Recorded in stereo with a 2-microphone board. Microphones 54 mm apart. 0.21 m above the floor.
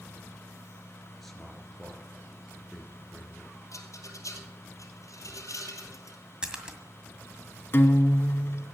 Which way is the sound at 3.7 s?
75° left (ahead or behind).